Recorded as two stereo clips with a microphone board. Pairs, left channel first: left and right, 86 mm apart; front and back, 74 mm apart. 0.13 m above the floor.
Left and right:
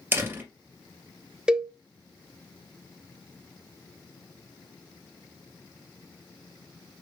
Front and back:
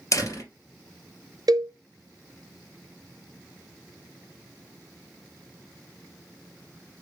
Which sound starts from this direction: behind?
A cowbell, at 1.5 s.